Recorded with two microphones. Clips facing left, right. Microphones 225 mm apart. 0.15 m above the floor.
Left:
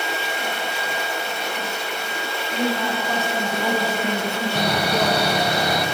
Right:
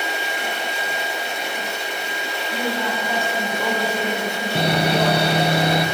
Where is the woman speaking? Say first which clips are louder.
Left 2 dB; 5° right (ahead or behind), 1.4 m; by 5.3 s 25° left (ahead or behind), 1.8 m.